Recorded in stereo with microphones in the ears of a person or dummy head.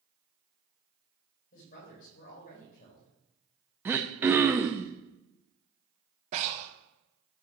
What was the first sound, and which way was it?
A woman speaking, 50° left (ahead or behind).